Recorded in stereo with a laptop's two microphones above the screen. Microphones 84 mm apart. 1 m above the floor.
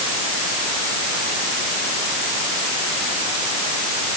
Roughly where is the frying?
I don't hear frying.